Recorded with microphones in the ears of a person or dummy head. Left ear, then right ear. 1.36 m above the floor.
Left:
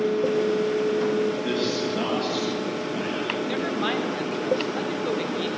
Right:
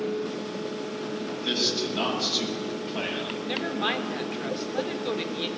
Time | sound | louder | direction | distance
1.2 | a man speaking | left 1 dB | 35° right (ahead or behind) | 8 m
3.5 | a woman speaking | left 2 dB | 10° right (ahead or behind) | 3.5 m